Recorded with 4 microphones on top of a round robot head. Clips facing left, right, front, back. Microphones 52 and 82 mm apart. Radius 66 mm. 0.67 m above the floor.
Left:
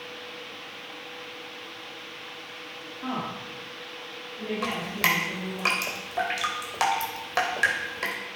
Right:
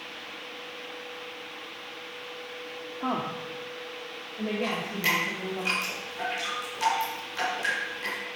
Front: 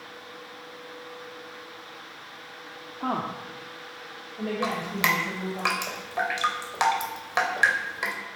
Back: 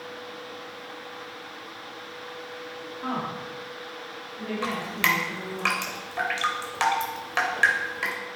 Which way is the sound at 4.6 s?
70° left.